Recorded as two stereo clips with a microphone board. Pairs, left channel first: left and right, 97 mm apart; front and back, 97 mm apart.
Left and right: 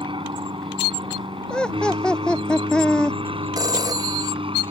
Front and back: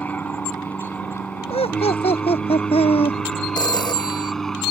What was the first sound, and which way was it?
An aircraft, 75° right.